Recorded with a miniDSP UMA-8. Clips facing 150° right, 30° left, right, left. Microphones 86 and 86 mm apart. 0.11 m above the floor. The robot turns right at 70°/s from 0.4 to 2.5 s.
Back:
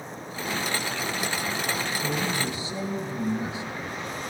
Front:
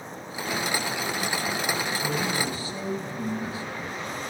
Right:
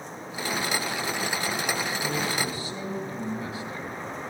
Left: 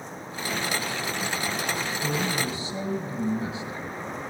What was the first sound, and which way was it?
A man speaking, 115° left.